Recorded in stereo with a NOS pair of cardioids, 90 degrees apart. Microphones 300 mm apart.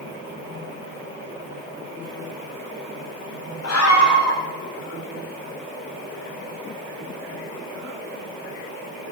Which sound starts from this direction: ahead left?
A scream, at 3.6 s.